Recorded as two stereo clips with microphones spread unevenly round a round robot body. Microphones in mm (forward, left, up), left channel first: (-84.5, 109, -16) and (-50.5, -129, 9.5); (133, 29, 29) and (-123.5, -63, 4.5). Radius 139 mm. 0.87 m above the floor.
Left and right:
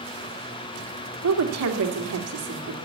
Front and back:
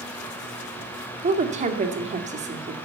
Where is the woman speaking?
95° right, 2 m.